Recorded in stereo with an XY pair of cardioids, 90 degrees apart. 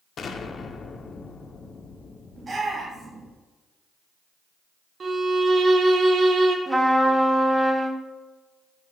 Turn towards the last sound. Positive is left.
turn(degrees=-10)